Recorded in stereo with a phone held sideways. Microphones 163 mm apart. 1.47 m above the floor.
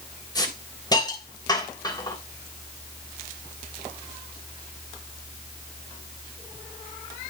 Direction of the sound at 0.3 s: 25° left (ahead or behind).